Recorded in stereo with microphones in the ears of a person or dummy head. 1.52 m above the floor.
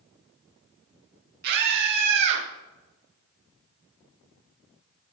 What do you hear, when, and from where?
1.4 s a scream: 60° right (ahead or behind), 2.5 m; by 2.4 s 65° right (ahead or behind), 3 m